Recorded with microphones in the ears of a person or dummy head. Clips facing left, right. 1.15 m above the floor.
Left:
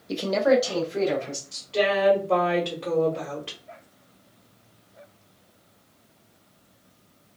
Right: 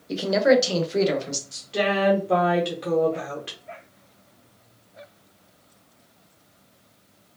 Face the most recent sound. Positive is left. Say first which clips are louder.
# left 1 dB
turn(degrees=-20)  # may be behind; listen again after turning